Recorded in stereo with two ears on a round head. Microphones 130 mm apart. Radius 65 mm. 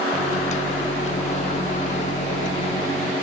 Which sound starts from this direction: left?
A microwave, at 0.1 s.